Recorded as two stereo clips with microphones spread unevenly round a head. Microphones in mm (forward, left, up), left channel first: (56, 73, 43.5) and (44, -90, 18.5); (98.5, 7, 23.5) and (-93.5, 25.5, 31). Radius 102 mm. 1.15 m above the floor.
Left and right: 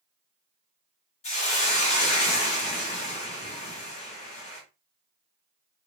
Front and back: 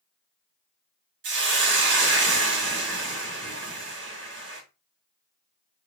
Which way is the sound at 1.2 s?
145° left.